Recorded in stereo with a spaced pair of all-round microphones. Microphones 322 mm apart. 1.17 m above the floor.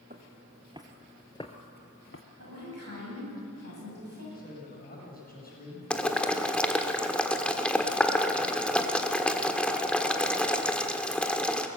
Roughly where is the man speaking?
Left.